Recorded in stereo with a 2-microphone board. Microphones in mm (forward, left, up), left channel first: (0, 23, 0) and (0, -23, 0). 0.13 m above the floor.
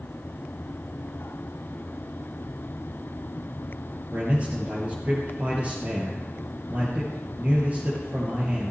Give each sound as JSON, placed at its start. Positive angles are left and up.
{"t": 4.1, "sound": "a man speaking", "side_deg": -35, "distance_m": 3.0}